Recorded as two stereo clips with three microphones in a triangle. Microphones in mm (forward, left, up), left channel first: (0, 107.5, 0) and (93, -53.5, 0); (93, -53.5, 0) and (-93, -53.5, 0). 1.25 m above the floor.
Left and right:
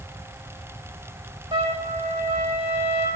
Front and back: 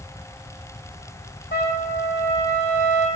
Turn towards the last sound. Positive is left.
turn(degrees=0)